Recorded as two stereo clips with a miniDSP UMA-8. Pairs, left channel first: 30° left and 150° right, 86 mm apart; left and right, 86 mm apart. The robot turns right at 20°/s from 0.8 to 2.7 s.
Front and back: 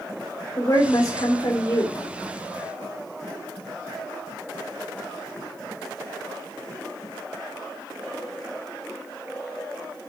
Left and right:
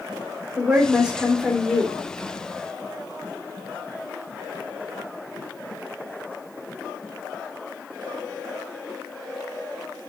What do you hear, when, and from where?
0.6 s a woman speaking: 15° right, 2.5 m; by 2.0 s 10° left, 2.5 m